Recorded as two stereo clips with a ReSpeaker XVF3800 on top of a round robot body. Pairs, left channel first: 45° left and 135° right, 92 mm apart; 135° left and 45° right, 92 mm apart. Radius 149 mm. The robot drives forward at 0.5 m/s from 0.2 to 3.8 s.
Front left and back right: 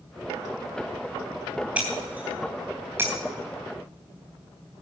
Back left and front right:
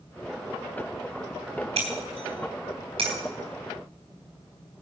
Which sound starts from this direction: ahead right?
Breaking glass, at 1.8 s.